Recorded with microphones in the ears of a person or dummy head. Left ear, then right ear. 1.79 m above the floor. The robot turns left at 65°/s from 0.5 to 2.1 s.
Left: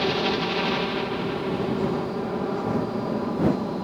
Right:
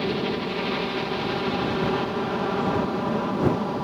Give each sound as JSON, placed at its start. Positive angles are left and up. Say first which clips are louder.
{"t": 0.0, "sound": "a helicopter", "louder": "left 3 dB", "azimuth_deg": 25}